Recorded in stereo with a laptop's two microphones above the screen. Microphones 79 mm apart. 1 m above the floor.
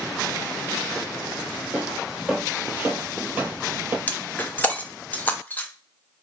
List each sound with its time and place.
1.7 s footsteps: 10° right (ahead or behind), 1.4 m; by 4.0 s 30° right (ahead or behind), 1.1 m
4.1 s breaking glass: 20° left (ahead or behind), 0.5 m